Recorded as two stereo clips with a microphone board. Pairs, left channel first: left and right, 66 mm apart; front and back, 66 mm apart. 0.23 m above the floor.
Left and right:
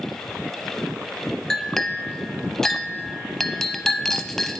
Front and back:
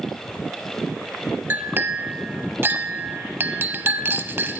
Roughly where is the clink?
Behind.